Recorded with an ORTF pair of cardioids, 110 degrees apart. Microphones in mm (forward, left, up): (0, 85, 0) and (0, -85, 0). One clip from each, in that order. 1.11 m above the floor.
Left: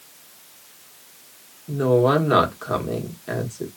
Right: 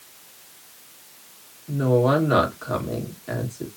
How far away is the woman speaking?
About 1.5 m.